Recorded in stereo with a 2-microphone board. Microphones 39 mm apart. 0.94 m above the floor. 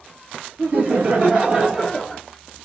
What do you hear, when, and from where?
0.6 s laughter: 55° right (ahead or behind), 1.5 m; by 2.2 s 10° left (ahead or behind), 0.8 m